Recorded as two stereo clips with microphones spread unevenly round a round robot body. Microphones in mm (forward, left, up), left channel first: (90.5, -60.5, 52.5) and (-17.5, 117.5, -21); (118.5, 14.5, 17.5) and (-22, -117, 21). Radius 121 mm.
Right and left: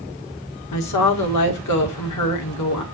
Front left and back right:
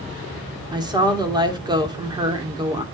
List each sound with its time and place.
0.7 s a woman speaking: 70° right, 2.0 m